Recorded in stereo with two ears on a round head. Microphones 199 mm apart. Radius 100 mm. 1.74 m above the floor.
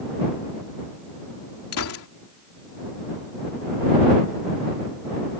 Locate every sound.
1.7 s a gunshot: 75° left (ahead or behind)